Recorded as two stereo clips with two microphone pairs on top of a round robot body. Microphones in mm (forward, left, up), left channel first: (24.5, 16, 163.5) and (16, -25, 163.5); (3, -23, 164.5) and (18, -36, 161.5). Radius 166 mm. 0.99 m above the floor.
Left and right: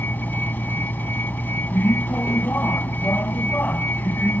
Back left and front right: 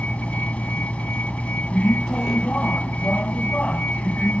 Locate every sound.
0.0 s a vehicle: 130° left